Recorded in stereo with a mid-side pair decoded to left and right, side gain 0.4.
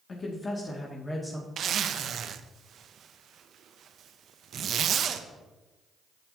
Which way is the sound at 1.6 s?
65° right.